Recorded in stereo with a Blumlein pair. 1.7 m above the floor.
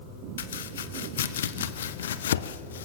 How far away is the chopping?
About 1.2 m.